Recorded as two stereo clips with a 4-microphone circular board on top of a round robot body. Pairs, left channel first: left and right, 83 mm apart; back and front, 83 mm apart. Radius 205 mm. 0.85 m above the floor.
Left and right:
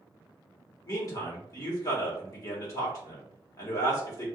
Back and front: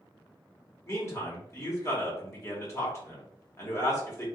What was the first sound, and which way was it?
A man speaking, 130° left.